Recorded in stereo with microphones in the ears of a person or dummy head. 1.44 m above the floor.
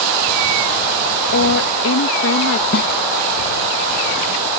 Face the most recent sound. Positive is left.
turn(degrees=55)  # may be behind; listen again after turning